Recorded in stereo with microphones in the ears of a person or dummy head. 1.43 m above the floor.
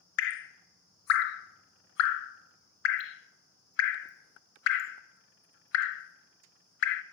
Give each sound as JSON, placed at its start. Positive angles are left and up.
{"t": 0.2, "sound": "dripping", "side_deg": 70, "distance_m": 0.8}